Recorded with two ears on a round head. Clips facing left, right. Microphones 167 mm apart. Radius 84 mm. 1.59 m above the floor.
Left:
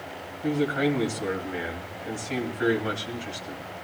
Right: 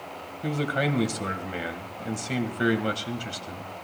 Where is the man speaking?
50° right (ahead or behind), 2.5 m.